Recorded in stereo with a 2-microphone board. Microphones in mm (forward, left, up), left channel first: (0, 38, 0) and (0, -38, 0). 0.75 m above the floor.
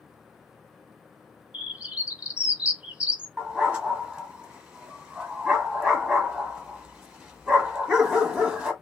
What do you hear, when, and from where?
1.5 s a bird: 15° right (ahead or behind), 0.9 m
3.4 s a dog barking: 15° right (ahead or behind), 1.0 m